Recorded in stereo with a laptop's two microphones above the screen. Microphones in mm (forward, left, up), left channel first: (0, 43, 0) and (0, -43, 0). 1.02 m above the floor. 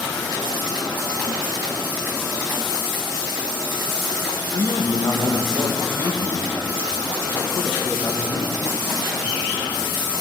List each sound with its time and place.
4.5 s a man speaking: 50° left (ahead or behind), 1.4 m